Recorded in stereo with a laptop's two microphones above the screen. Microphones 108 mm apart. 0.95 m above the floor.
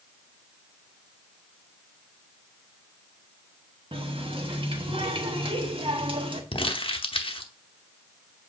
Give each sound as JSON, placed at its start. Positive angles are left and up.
{"t": 3.9, "sound": "a running tap", "side_deg": -50, "distance_m": 1.1}
{"t": 6.5, "sound": "crumpling", "side_deg": 55, "distance_m": 0.8}